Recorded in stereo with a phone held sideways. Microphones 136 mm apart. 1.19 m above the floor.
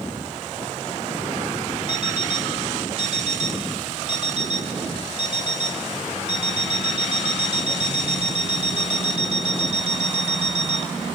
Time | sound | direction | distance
1.9 | an alarm clock | 55° right (ahead or behind) | 2 m